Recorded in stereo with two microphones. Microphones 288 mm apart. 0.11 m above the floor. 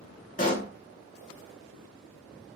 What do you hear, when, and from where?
0.4 s a pop: 30° left (ahead or behind), 0.7 m